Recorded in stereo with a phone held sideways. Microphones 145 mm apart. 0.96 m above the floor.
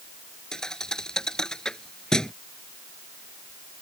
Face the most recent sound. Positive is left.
turn(degrees=5)  # may be behind; listen again after turning